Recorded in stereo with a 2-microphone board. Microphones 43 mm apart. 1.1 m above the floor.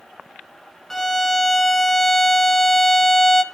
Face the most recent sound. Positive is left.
turn(degrees=10)  # may be behind; listen again after turning